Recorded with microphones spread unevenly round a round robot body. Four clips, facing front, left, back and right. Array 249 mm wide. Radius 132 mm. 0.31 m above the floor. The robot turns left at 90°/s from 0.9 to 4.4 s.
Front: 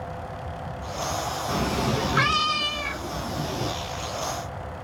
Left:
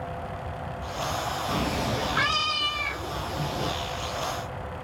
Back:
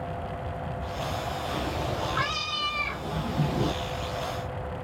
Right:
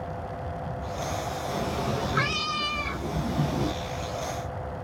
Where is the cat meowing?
45° left, 0.8 m; by 3.7 s 155° right, 0.8 m.